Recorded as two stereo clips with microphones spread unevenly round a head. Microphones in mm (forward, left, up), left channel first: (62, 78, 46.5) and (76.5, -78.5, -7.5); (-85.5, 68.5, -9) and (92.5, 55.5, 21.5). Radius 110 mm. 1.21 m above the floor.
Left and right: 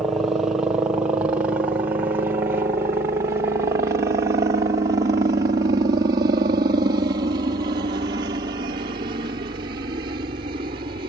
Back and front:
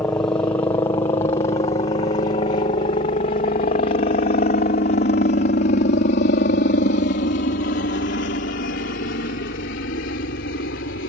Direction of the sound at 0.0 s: 125° right.